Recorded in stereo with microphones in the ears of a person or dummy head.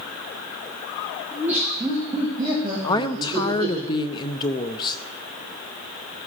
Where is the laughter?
10° right (ahead or behind), 2 m; by 3.8 s 40° right (ahead or behind), 3 m.